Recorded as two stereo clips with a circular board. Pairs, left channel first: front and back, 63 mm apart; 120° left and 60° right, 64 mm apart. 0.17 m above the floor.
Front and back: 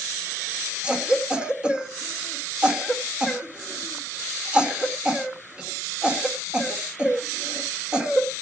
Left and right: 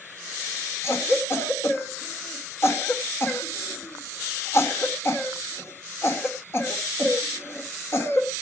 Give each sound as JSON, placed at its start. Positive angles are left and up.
{"t": 0.8, "sound": "a cough", "azimuth_deg": 110, "distance_m": 2.0}